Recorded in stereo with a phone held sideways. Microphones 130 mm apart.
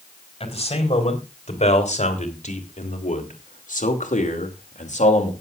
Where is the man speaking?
50° left (ahead or behind), 5 m; by 5.3 s 60° left (ahead or behind), 3 m.